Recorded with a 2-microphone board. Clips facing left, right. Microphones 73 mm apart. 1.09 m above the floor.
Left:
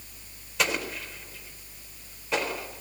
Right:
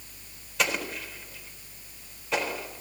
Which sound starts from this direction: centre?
An explosion, at 0.6 s.